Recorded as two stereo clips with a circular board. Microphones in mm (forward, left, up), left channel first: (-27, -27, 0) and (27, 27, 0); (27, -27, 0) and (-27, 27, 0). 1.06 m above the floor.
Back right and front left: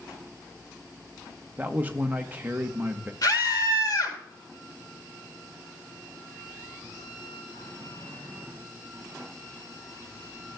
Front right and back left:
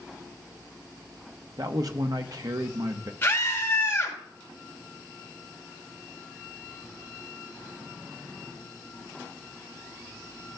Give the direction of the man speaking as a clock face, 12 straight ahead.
8 o'clock.